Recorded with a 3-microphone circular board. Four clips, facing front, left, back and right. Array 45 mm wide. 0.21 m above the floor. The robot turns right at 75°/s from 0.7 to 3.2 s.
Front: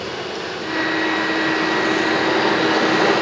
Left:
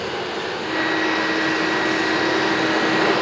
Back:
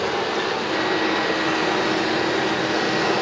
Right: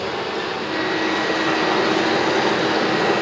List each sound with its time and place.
0.0 s running water: 170° right, 4.5 m; by 3.2 s 15° left, 4.5 m